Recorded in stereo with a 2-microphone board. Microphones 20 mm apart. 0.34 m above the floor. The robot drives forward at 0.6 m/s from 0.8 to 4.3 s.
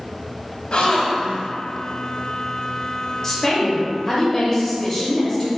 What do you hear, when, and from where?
0.7 s a gasp: 60° left (ahead or behind), 0.7 m; by 1.5 s 65° left (ahead or behind), 0.7 m
3.2 s a woman speaking: 25° left (ahead or behind), 1.0 m